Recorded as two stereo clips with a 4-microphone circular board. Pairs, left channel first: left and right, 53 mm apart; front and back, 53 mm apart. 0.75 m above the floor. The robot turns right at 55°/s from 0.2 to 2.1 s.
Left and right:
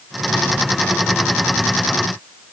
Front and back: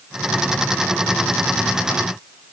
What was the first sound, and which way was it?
Only background noise.